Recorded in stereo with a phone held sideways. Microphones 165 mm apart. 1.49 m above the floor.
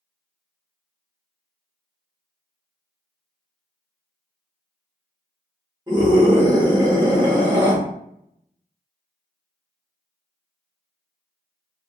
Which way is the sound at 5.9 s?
25° right (ahead or behind).